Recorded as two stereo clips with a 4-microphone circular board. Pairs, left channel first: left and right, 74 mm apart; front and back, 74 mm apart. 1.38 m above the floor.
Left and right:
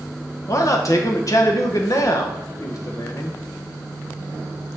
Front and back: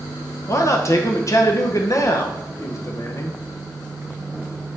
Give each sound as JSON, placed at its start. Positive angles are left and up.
{"t": 0.5, "sound": "a man speaking", "azimuth_deg": 50, "distance_m": 1.0}